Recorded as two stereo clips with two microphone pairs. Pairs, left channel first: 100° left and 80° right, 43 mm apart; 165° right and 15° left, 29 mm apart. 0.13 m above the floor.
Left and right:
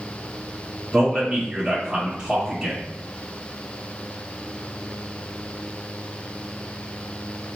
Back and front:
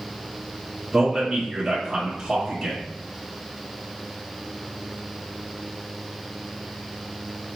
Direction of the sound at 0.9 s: 40° right.